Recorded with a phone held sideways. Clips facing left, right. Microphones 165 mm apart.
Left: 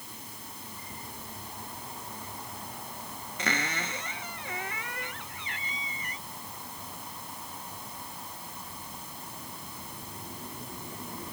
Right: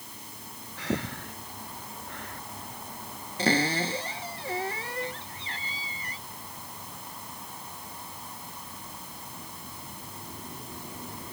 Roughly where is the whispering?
No whispering in this recording.